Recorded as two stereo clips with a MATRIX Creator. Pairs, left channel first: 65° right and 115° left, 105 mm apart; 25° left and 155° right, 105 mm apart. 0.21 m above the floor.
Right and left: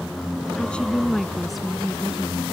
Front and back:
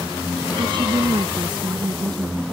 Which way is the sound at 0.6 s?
140° right.